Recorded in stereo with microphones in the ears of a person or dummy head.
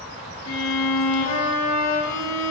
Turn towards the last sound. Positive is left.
turn(degrees=85)